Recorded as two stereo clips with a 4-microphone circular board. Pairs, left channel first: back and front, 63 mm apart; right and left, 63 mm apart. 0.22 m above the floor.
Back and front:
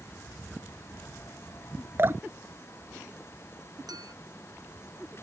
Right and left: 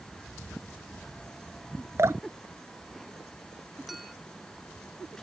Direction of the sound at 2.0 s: 50° left.